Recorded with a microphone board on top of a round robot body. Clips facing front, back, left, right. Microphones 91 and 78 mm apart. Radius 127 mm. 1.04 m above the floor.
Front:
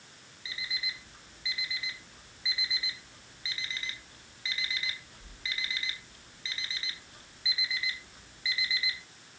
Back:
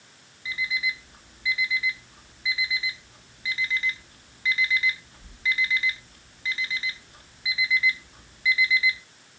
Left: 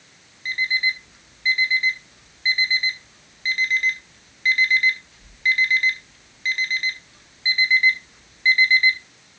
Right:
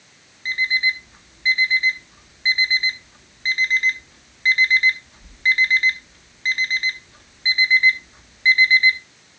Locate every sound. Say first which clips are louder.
0.5 s an alarm clock: back 11 dB, right 2 dB; 135° right, 0.5 m